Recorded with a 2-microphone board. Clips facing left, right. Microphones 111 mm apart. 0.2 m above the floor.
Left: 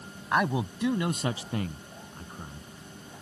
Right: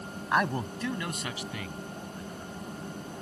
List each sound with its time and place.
0.3 s a man speaking: centre (ahead or behind); by 2.7 s 50° left (ahead or behind)